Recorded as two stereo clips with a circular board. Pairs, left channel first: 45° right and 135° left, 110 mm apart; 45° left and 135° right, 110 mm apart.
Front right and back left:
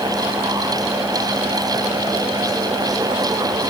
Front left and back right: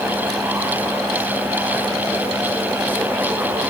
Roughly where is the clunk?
No clunk in this recording.